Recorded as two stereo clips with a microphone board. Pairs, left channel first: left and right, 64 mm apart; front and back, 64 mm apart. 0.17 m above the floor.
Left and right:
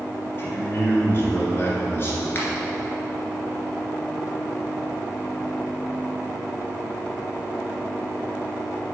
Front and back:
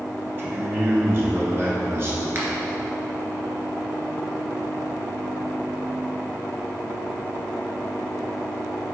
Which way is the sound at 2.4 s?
140° left.